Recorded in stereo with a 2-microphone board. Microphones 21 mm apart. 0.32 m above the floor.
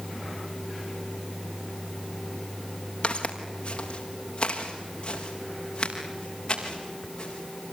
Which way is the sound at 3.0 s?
50° left (ahead or behind).